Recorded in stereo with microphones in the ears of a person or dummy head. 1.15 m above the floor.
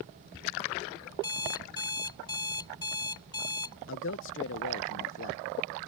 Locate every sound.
1.2 s an alarm clock: 20° left (ahead or behind)
3.9 s a man speaking: 55° left (ahead or behind)